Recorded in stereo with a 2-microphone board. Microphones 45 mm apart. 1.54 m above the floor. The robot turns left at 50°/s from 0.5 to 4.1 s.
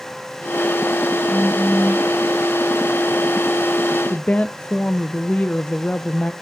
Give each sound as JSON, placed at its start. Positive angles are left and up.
{"t": 1.3, "sound": "a phone buzzing", "azimuth_deg": -10, "distance_m": 3.5}
{"t": 4.1, "sound": "a woman speaking", "side_deg": 35, "distance_m": 0.5}